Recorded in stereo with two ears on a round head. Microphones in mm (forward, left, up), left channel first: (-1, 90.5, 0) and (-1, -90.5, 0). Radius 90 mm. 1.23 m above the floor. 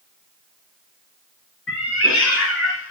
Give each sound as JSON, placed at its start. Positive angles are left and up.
{"t": 1.7, "sound": "a cat meowing", "side_deg": 65, "distance_m": 4.5}